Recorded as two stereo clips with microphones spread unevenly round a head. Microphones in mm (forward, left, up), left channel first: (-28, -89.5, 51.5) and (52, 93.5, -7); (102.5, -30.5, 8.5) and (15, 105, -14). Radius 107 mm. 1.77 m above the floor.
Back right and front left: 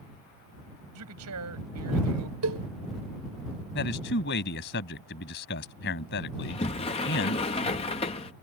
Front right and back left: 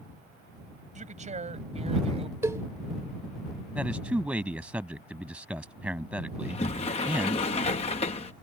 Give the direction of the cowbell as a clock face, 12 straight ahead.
10 o'clock.